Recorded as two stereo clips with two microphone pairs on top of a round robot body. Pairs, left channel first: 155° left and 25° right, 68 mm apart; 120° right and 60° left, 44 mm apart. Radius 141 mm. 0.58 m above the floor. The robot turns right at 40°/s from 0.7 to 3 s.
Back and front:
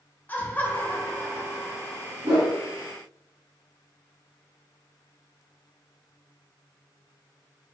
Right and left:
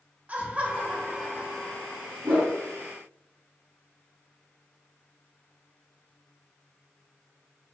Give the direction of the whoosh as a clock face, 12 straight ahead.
12 o'clock.